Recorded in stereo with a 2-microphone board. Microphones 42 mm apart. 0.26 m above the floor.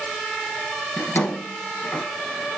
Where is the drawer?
45° left (ahead or behind), 2.0 m.